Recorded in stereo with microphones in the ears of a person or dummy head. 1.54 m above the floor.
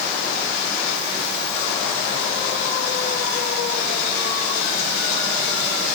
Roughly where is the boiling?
I don't hear boiling.